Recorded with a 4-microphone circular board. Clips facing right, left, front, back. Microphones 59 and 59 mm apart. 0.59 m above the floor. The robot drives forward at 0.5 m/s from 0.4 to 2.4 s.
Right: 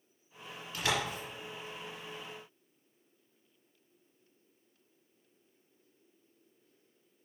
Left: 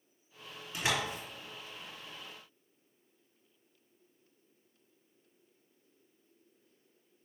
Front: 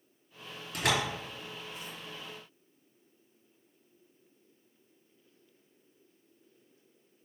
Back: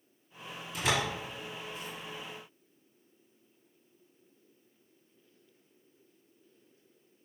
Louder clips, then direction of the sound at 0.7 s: Even, front 1 dB; 25° left.